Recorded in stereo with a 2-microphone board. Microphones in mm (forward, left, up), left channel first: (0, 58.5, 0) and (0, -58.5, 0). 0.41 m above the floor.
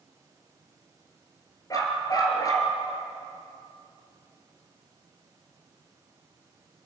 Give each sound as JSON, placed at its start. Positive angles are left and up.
{"t": 1.7, "sound": "a dog barking", "side_deg": 30, "distance_m": 3.5}